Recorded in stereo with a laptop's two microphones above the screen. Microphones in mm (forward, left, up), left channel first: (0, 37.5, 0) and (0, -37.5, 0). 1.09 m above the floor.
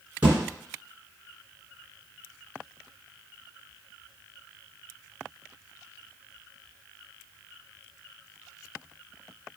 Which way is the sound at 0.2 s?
20° right (ahead or behind).